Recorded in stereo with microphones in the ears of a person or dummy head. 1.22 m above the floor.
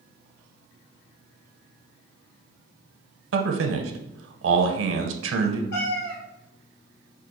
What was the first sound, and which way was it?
A man speaking, 65° right (ahead or behind).